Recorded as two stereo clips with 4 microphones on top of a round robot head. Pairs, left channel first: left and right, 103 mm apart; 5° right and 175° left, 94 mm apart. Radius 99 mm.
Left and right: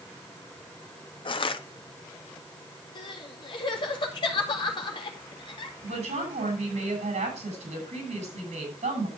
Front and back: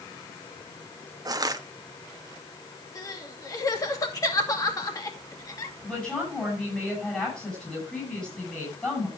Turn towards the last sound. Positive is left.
turn(degrees=-80)